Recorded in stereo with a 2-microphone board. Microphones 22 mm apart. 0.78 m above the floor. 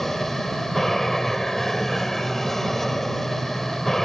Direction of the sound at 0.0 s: 10° left (ahead or behind).